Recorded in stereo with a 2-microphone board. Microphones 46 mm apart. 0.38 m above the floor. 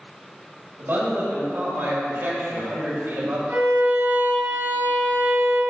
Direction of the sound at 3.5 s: 60° right (ahead or behind).